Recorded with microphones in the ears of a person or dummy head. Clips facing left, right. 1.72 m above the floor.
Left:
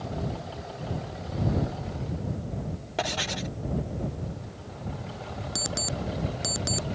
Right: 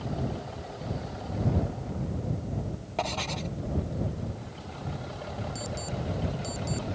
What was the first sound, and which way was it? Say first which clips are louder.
Writing: left 1 dB; 15° left (ahead or behind).